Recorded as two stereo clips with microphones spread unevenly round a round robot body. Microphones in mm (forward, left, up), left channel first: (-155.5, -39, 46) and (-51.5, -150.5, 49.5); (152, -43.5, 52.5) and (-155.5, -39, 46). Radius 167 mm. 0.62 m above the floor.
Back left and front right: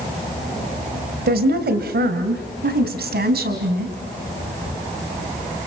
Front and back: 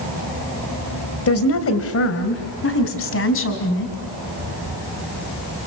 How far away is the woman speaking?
About 2.5 m.